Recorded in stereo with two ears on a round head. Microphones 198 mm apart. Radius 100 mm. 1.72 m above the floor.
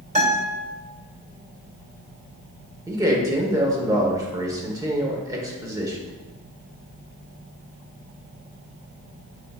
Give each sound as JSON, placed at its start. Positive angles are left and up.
{"t": 0.1, "sound": "a guitar", "side_deg": -35, "distance_m": 2.5}
{"t": 2.9, "sound": "a man speaking", "side_deg": -15, "distance_m": 1.2}